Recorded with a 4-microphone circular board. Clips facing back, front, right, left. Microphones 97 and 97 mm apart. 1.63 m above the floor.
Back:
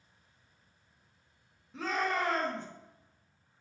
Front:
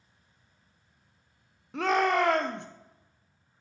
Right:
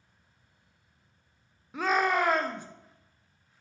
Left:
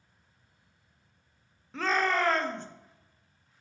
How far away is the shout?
About 0.6 m.